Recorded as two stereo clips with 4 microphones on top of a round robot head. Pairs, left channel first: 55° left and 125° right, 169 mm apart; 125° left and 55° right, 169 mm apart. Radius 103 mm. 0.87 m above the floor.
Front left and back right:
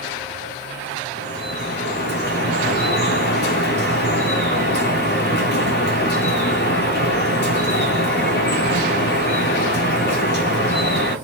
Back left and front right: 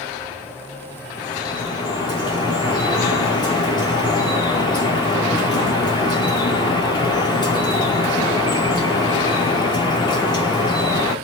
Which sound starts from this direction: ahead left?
Dripping, at 1.2 s.